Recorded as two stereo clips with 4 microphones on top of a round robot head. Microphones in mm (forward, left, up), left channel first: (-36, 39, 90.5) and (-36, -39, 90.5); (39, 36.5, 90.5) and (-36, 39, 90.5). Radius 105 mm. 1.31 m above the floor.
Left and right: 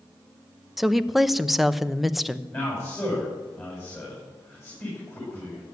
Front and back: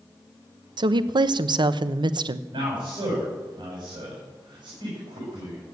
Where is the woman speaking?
Straight behind, 0.9 m.